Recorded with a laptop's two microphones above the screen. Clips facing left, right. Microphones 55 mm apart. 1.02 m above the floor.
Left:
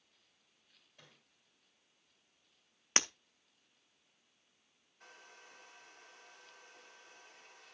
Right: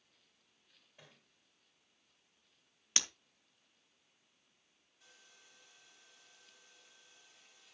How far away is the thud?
About 3 m.